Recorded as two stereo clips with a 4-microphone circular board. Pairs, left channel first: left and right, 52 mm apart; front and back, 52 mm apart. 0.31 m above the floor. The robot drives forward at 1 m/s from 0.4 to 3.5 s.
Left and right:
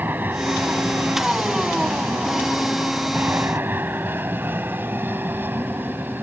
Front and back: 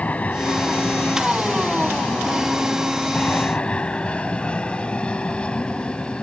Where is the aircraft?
50° right; by 6.2 s 65° right.